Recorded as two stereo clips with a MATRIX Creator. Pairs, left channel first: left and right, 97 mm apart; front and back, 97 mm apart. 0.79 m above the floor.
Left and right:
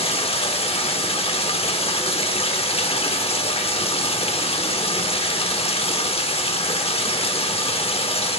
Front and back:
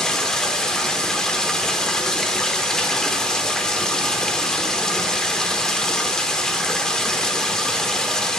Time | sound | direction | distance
0.0 | running water | 85° left | 0.9 m